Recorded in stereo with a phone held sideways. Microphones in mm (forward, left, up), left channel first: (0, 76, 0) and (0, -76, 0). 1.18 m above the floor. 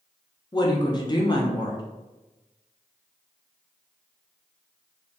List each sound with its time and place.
0.5 s a woman speaking: 30° left (ahead or behind), 0.5 m